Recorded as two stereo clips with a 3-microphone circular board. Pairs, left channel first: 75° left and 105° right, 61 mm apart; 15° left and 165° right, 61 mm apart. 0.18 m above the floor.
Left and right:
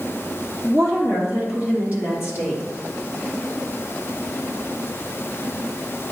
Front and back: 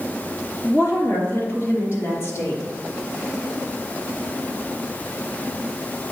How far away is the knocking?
No knocking in this recording.